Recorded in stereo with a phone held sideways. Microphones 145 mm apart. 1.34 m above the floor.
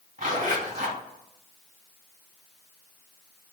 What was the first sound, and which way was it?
A zipper, 60° right (ahead or behind).